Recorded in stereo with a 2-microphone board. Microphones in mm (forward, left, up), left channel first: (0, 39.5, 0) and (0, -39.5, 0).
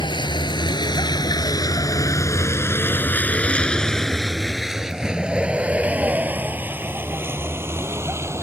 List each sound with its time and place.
0.0 s a vehicle: 75° left (ahead or behind); by 8.4 s 35° right (ahead or behind)